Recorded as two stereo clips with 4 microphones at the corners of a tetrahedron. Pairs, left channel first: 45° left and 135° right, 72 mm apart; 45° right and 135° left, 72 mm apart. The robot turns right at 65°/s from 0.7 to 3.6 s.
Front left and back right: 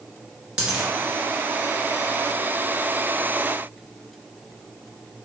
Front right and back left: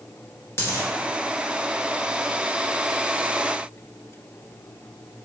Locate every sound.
0.6 s a dropped coin: 70° right, 1.6 m; by 0.9 s 55° right, 1.6 m